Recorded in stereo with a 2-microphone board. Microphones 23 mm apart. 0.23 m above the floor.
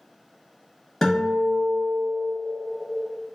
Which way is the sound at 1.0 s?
20° left (ahead or behind).